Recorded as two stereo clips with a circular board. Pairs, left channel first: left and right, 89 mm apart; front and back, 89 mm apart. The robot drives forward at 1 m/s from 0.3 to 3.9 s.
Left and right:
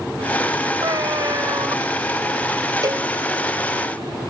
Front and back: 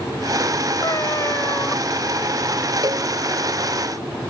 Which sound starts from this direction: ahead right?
A cat meowing, at 0.8 s.